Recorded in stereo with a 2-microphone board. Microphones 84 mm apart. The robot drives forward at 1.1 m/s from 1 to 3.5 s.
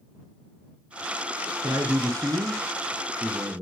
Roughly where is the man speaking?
Right.